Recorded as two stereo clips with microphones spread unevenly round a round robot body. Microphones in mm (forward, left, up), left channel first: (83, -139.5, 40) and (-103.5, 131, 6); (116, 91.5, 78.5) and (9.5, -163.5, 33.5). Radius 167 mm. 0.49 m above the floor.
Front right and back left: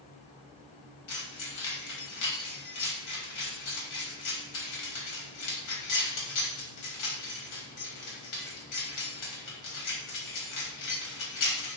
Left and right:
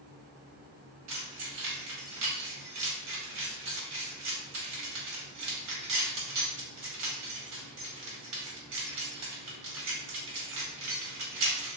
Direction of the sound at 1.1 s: 90° right.